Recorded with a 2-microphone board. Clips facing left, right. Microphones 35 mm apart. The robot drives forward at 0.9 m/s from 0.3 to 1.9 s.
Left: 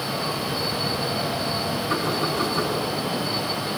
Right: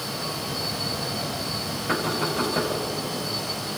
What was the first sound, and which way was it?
Knocking, 65° right (ahead or behind).